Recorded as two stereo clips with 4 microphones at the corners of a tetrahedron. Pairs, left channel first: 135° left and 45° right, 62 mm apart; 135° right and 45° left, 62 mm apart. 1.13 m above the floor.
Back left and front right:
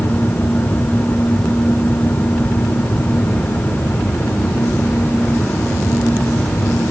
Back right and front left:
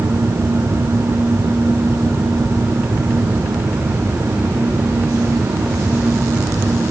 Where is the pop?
No pop in this recording.